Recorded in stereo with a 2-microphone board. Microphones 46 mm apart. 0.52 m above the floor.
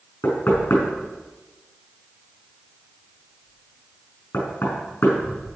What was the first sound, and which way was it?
Knocking, 60° left (ahead or behind).